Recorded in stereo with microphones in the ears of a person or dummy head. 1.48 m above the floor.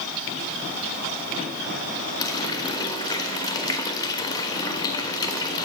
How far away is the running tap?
About 1.1 m.